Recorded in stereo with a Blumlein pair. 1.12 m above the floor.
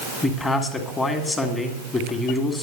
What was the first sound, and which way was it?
A man speaking, 15° left.